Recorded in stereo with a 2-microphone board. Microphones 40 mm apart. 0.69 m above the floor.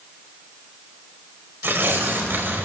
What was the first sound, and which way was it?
Tearing paper, 60° right (ahead or behind).